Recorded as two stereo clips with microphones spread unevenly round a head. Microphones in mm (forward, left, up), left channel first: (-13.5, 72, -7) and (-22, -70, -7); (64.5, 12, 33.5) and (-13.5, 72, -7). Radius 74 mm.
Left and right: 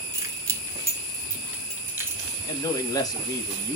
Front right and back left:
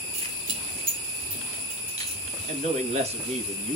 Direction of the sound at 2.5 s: 150° left.